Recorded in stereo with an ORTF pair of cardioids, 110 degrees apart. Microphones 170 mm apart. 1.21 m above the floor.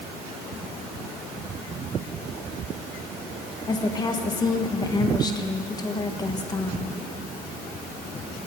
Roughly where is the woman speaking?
Ahead left.